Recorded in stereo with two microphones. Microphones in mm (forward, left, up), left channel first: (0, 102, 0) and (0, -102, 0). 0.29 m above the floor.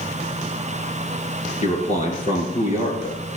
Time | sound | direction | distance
1.6 | a man speaking | 35° left (ahead or behind) | 4.5 m